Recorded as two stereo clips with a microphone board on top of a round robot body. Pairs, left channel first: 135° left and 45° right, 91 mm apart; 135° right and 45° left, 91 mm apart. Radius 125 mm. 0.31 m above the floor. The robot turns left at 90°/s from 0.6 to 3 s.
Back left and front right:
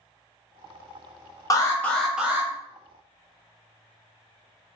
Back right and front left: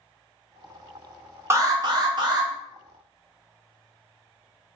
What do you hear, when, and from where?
1.5 s an alarm: 100° left, 1.1 m; by 2.5 s 10° left, 1.1 m